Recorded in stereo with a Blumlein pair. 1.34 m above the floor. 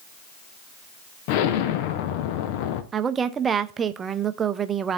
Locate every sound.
1.3 s an explosion: 45° left, 0.7 m
2.9 s a woman speaking: 20° right, 0.6 m